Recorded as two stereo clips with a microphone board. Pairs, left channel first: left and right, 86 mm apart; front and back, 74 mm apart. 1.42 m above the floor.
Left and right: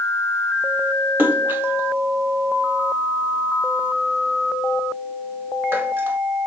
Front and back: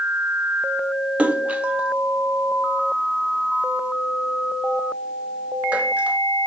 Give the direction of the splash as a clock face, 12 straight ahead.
4 o'clock.